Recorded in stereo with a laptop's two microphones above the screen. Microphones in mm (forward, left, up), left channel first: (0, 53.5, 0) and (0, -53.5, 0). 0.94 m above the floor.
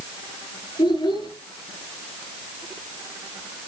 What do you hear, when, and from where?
0.8 s a child speaking: 45° left (ahead or behind), 8 m